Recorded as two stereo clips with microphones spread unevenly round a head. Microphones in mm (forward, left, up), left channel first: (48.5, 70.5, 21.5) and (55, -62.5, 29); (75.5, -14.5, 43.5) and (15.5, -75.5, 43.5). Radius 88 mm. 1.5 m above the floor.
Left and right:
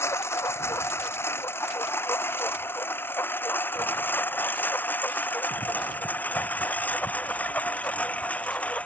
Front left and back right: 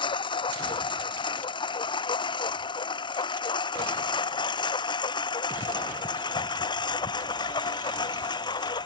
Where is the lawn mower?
20° left; by 8.9 s 10° left.